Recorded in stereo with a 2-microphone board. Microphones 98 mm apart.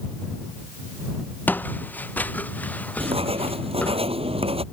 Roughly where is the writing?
Right.